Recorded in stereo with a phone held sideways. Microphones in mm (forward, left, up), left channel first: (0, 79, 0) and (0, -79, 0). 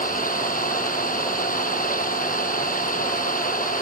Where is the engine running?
60° left (ahead or behind).